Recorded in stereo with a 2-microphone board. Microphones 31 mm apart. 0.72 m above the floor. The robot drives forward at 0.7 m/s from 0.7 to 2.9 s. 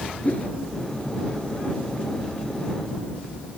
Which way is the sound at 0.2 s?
40° left (ahead or behind).